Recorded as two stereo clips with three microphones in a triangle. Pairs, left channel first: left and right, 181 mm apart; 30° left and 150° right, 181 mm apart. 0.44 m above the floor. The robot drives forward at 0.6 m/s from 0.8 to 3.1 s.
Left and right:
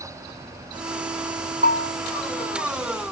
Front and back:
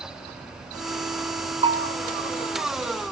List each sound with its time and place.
1.6 s a bell: 110° right, 1.8 m; by 1.9 s 115° right, 1.8 m